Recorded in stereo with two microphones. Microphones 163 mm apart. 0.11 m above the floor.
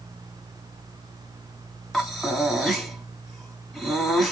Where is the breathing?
Centre (ahead or behind), 5 m.